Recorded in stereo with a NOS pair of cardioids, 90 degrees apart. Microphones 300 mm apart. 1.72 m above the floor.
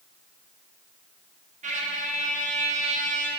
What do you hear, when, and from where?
1.6 s a trumpet: 25° right, 0.6 m